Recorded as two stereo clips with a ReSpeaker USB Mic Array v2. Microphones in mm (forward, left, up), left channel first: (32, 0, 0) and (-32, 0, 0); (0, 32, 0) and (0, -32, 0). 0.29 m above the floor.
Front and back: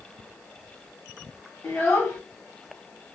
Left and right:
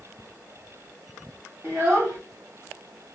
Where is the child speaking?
40° right, 1.2 m.